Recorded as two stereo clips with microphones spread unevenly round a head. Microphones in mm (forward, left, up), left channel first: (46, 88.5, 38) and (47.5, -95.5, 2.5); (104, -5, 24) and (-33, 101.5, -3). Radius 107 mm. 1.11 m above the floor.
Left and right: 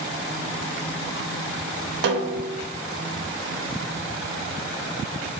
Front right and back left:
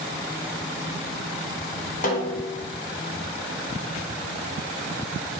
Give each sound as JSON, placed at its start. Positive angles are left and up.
{"t": 2.0, "sound": "a snare drum", "azimuth_deg": -65, "distance_m": 0.6}